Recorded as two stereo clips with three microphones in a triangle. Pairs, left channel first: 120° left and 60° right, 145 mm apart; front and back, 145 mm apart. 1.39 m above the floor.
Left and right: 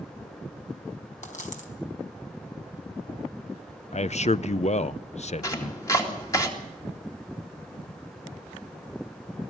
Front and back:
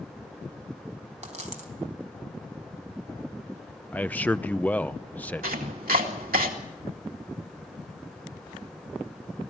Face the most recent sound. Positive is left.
turn(degrees=-175)